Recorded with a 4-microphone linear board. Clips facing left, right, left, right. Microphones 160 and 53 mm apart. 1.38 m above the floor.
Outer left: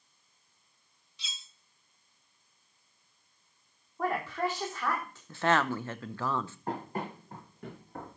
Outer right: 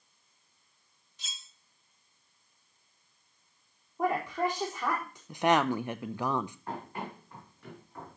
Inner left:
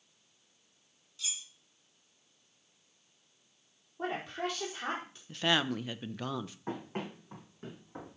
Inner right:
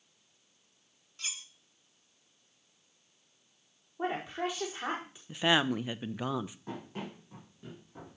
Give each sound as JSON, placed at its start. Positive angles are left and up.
{"t": 1.2, "sound": "cutlery clinking", "side_deg": -50, "distance_m": 0.8}
{"t": 4.0, "sound": "a woman speaking", "side_deg": -15, "distance_m": 4.5}
{"t": 5.3, "sound": "a woman speaking", "side_deg": -15, "distance_m": 0.6}
{"t": 6.7, "sound": "running footsteps", "side_deg": 40, "distance_m": 4.0}